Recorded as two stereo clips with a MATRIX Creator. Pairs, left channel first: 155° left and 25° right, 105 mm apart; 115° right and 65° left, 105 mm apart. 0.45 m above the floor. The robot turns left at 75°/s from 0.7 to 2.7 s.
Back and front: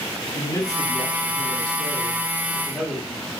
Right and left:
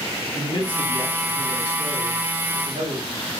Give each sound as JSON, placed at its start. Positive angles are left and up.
{"t": 0.3, "sound": "a man speaking", "azimuth_deg": -145, "distance_m": 4.0}